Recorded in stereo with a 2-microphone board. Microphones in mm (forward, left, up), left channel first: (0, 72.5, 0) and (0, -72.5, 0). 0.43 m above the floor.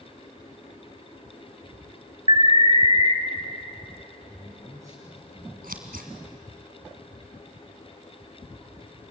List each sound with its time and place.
2.3 s an alarm: 40° right (ahead or behind), 1.9 m
4.3 s a man speaking: 20° right (ahead or behind), 3.5 m
5.6 s scissors: 80° right, 2.5 m